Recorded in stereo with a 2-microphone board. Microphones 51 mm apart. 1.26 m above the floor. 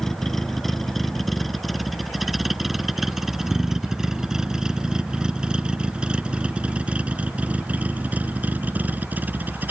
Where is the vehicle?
5° left (ahead or behind); by 9.7 s 35° right (ahead or behind).